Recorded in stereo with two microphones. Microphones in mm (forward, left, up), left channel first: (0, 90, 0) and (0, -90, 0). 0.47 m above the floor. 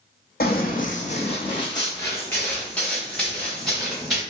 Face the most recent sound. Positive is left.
turn(degrees=0)  # may be behind; listen again after turning